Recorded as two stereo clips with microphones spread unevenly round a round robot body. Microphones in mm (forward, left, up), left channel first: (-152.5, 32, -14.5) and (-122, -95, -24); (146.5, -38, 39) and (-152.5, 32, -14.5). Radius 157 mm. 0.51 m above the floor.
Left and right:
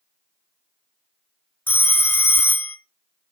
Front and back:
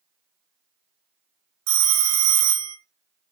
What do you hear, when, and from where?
1.7 s a phone ringing: straight behind, 0.6 m